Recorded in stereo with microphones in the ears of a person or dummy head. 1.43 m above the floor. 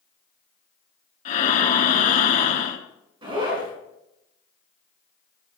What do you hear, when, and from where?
1.2 s breathing: 45° left (ahead or behind), 1.4 m
3.2 s a zipper: 25° right (ahead or behind), 6 m